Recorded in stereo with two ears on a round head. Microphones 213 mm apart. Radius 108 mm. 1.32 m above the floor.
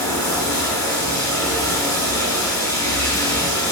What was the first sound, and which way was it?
Running water, 15° left (ahead or behind).